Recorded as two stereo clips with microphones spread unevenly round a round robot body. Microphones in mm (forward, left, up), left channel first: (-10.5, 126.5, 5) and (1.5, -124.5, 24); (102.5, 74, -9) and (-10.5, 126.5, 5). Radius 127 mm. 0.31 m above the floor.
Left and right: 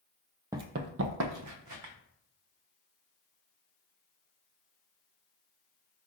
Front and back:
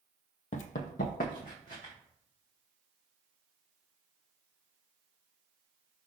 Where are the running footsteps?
15° right, 0.5 m; by 1.9 s 75° right, 1.4 m.